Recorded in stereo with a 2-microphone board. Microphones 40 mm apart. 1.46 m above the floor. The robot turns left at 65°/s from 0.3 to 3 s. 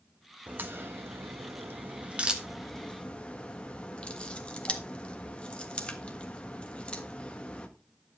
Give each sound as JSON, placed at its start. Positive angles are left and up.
{"t": 0.5, "sound": "a crack", "side_deg": -40, "distance_m": 1.4}